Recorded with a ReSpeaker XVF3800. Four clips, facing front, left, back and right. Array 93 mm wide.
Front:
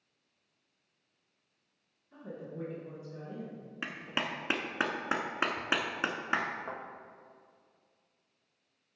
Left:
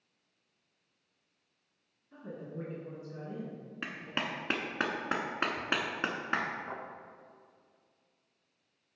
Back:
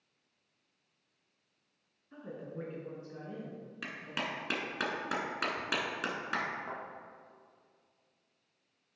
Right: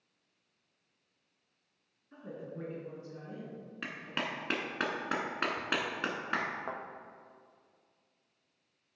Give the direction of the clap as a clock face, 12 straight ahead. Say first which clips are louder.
Left 1 dB, front 3 dB; 11 o'clock.